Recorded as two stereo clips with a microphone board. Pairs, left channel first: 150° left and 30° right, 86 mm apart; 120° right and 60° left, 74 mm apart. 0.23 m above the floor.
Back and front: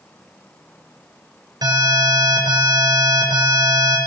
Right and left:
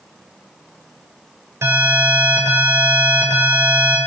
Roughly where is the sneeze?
I don't hear a sneeze.